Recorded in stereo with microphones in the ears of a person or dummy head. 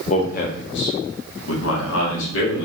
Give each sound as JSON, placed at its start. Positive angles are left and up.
{"t": 0.1, "sound": "a man speaking", "side_deg": 40, "distance_m": 0.9}